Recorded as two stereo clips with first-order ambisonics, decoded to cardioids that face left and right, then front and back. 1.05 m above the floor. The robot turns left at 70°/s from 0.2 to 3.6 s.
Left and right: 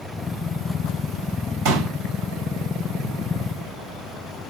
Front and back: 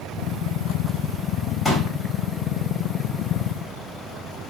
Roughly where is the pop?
Right.